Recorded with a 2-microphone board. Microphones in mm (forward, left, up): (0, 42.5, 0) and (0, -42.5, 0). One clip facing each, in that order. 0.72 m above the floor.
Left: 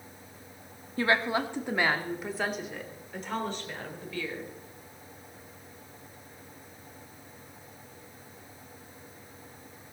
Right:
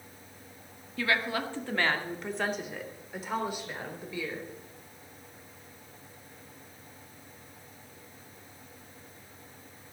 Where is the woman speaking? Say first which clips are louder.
Left 3 dB; 35° left (ahead or behind), 1.6 m; by 4.5 s 15° right (ahead or behind), 4 m.